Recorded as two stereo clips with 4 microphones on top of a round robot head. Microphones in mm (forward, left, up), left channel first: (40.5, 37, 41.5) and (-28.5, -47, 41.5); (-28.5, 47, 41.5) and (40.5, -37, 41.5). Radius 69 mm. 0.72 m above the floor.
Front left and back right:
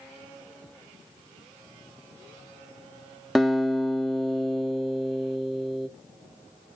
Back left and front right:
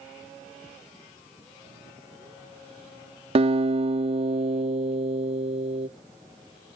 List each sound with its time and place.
3.4 s a guitar: 35° right, 1.5 m